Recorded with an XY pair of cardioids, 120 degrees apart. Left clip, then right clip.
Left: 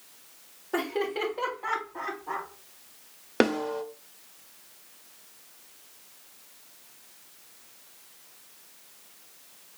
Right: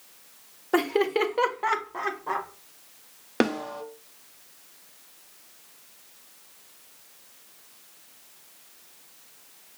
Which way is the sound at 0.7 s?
40° right.